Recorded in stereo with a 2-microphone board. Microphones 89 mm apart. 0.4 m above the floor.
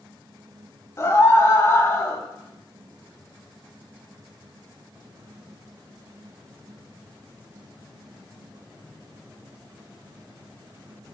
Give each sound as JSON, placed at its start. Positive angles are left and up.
{"t": 1.0, "sound": "a scream", "side_deg": 30, "distance_m": 2.5}